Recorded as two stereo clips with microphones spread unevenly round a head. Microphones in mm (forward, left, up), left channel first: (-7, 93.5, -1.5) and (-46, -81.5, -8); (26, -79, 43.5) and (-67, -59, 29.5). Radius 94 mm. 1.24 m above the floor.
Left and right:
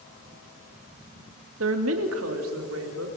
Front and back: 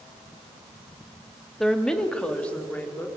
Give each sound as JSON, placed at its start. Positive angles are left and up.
{"t": 1.6, "sound": "a woman speaking", "azimuth_deg": -100, "distance_m": 2.0}